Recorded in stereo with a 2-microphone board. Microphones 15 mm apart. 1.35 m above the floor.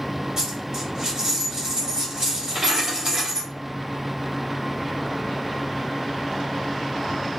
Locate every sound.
0.4 s a dropped coin: 45° right (ahead or behind), 1.9 m